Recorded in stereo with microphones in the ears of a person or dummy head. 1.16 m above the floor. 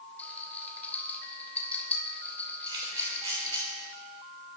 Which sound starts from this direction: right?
A camera shutter, at 2.7 s.